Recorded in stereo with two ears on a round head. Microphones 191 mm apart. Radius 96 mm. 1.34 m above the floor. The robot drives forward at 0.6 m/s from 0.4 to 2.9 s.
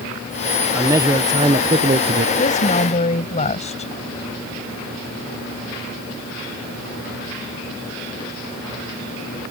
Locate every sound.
0.7 s a man speaking: 10° right (ahead or behind); by 2.3 s 35° right (ahead or behind)
2.4 s a woman speaking: 35° left (ahead or behind)